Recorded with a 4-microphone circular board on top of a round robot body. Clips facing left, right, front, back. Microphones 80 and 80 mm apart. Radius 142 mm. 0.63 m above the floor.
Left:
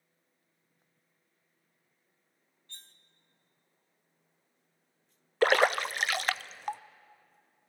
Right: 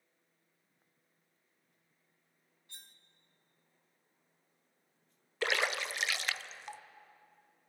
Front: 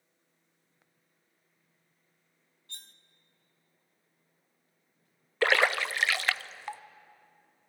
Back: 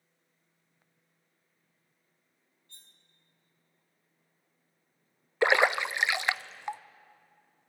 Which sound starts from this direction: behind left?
A splash, at 5.4 s.